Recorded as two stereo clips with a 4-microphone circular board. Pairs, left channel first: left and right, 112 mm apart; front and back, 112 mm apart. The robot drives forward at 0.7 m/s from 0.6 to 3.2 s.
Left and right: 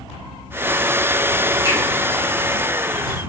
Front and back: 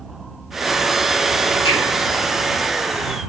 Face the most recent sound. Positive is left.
turn(degrees=-35)